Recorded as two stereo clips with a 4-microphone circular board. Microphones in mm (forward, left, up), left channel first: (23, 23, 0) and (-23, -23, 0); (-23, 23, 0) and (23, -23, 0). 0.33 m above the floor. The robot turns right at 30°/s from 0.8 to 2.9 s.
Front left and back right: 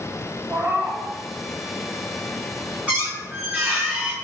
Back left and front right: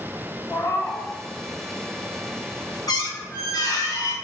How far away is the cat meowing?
About 1.0 m.